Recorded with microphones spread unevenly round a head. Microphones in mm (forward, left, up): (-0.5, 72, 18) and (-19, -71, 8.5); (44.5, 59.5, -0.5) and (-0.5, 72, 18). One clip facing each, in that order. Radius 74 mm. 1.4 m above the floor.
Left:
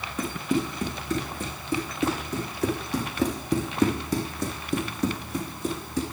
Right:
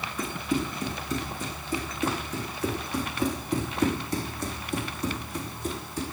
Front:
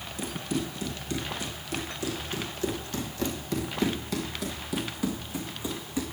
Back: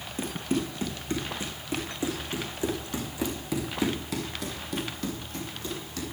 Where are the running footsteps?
125° left, 4 m; by 6.0 s 65° left, 3 m.